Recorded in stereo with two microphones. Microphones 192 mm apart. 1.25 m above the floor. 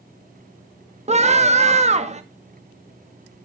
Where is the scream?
35° right (ahead or behind), 1.8 m.